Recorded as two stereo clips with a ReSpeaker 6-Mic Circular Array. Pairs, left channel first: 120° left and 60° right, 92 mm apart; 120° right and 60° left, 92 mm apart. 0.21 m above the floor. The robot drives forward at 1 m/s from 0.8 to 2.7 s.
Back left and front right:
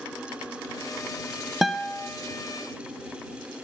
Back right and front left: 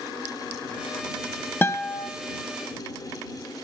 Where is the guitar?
140° right, 0.5 m; by 2.1 s 170° right, 0.8 m.